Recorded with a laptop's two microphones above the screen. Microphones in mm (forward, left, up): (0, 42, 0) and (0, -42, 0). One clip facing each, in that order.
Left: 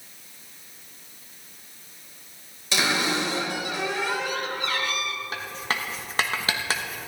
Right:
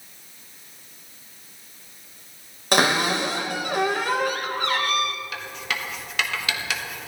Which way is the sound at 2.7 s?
60° right (ahead or behind).